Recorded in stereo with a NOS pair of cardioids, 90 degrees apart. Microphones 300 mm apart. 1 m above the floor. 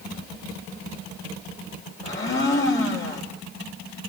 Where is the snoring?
No snoring in this recording.